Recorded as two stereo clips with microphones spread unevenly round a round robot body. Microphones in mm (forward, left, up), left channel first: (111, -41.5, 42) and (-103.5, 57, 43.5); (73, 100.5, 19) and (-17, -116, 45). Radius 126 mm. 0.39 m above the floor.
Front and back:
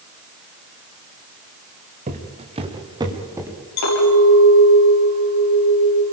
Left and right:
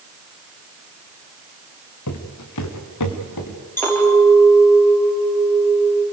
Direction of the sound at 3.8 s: 15° right.